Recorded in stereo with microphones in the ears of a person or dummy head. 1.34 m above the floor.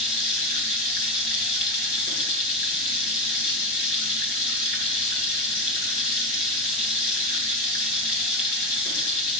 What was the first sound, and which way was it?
Running water, 50° left (ahead or behind).